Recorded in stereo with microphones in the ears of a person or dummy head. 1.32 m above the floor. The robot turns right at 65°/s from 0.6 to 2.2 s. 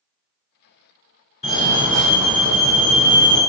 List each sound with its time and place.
1.4 s a fire alarm: 140° left, 1.7 m; by 3.4 s 170° right, 1.7 m